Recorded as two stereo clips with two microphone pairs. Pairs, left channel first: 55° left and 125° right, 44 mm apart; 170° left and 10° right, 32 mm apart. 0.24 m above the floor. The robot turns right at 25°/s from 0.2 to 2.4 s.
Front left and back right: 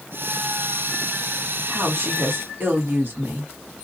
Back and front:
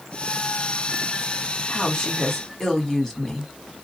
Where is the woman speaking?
135° right, 1.5 m; by 3.5 s 120° right, 1.5 m.